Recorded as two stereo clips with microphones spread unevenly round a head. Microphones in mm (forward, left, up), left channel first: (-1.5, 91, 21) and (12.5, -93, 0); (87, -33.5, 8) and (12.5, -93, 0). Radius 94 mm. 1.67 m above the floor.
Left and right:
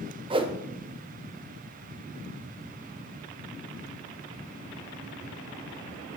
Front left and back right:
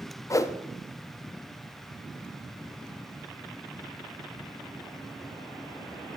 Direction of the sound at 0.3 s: 20° right.